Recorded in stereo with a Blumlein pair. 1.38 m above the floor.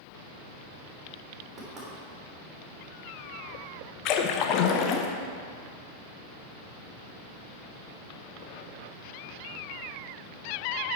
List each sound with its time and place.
1.6 s knocking: 25° right, 3 m
4.0 s a splash: 40° left, 0.9 m